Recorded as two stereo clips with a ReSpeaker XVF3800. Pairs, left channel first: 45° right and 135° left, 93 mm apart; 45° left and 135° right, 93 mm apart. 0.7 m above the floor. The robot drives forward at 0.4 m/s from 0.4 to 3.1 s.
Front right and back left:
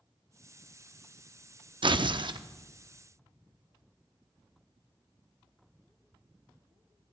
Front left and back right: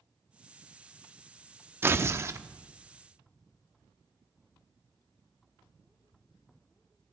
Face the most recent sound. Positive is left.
turn(degrees=170)